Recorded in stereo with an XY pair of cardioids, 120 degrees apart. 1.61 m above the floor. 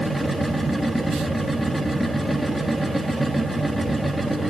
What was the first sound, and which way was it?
A machine running, 5° right.